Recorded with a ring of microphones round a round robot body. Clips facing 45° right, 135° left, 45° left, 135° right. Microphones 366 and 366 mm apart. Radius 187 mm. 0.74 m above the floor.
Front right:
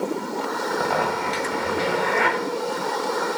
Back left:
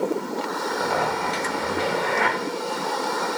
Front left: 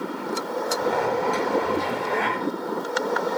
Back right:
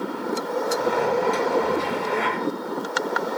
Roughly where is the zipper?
Ahead right.